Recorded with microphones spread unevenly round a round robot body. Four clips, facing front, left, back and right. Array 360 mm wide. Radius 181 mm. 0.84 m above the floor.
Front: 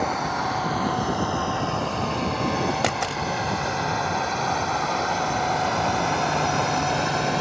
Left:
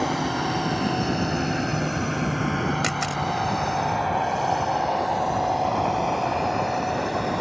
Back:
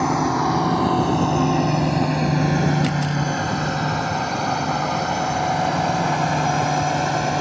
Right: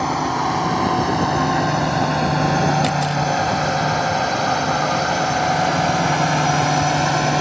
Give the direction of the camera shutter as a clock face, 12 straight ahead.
12 o'clock.